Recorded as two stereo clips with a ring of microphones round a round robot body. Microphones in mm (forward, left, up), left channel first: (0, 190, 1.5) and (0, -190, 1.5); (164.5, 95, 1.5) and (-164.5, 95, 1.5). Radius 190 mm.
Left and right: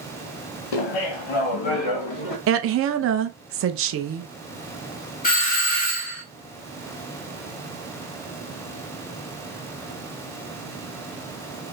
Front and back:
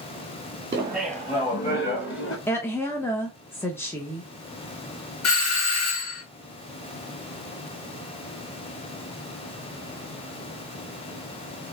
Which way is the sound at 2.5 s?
80° right.